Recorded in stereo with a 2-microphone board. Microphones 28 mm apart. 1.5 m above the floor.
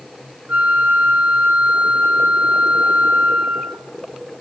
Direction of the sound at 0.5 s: 85° right.